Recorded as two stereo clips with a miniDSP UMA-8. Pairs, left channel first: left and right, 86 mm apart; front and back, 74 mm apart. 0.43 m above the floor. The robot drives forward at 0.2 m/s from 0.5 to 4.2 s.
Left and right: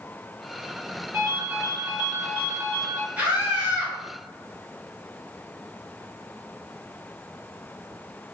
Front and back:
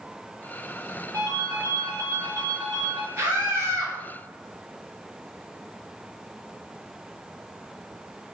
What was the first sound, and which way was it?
A ringtone, 145° right.